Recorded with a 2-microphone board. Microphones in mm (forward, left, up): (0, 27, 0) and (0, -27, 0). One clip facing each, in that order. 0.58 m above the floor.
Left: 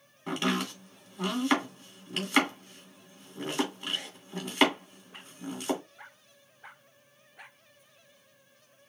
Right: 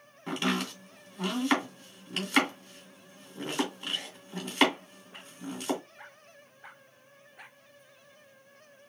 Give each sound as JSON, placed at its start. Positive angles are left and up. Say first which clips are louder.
{"t": 0.3, "sound": "chopping", "louder": "left 1 dB", "side_deg": 0, "distance_m": 2.5}